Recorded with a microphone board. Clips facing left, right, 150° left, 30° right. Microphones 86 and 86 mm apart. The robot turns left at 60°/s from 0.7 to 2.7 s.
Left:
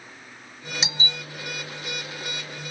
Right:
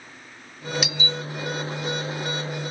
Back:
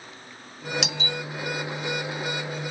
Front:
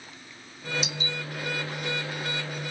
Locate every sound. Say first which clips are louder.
0.8 s a doorbell: right 3 dB, back 3 dB; 155° left; by 1.2 s 130° left